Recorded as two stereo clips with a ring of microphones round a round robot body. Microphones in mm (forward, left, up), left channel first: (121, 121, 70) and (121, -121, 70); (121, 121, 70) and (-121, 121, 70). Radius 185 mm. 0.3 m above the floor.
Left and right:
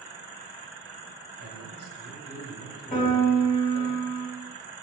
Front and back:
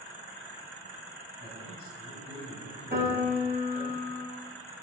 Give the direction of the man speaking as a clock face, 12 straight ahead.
4 o'clock.